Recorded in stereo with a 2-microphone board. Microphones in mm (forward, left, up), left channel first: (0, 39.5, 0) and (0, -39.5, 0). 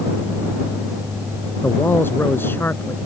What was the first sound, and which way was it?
A man speaking, 30° left (ahead or behind).